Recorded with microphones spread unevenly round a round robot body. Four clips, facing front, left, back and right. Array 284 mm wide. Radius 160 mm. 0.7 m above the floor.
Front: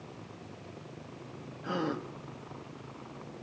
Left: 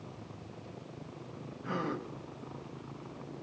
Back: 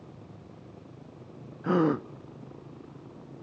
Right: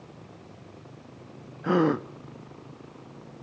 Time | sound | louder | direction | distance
1.6 | a gasp | right 13 dB, back 9 dB | 130° right | 0.5 m